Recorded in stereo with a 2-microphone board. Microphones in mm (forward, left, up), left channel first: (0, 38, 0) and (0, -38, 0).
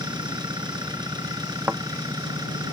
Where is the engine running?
60° right (ahead or behind).